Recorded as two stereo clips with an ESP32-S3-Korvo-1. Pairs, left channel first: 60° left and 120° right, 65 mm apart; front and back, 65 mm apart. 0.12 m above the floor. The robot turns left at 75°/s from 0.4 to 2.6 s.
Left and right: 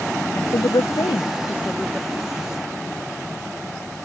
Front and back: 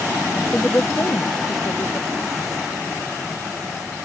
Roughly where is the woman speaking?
Left.